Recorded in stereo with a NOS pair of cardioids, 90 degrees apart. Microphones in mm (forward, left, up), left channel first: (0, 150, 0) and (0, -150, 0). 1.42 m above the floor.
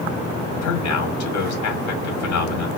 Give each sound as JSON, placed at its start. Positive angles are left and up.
{"t": 0.6, "sound": "a man speaking", "azimuth_deg": 70, "distance_m": 1.5}